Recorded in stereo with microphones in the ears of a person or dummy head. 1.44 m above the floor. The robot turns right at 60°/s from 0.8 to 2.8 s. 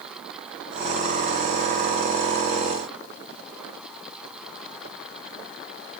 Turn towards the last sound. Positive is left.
No sound to turn to.